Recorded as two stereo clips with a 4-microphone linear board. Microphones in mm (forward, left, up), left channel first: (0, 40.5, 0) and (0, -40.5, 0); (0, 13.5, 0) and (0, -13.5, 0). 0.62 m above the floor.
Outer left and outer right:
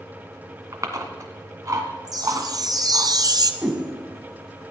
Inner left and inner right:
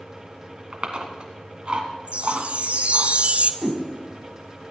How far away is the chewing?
About 1.8 m.